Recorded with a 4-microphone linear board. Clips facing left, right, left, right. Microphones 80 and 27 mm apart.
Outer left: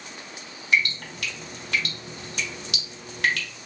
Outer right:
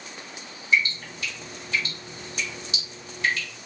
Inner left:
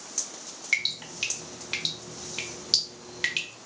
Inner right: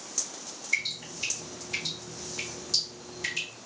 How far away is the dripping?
About 0.8 m.